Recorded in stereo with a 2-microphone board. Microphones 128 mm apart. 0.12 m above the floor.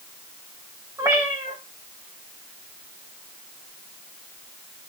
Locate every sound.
1.0 s a cat meowing: 25° right (ahead or behind), 4.5 m